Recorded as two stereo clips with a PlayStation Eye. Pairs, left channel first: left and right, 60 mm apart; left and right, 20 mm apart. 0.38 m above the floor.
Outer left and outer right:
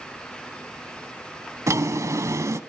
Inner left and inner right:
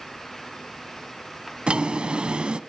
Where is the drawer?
60° right (ahead or behind), 1.1 m.